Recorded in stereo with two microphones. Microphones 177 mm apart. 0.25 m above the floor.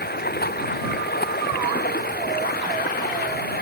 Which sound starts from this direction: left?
Running water, at 0.0 s.